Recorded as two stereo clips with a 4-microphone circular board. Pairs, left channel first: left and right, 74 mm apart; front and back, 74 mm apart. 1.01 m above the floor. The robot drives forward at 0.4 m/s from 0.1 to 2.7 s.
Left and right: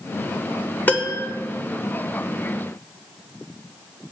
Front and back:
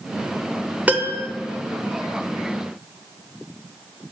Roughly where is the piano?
Behind left.